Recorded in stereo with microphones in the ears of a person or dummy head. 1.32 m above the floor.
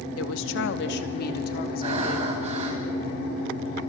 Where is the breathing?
35° right (ahead or behind), 3.5 m.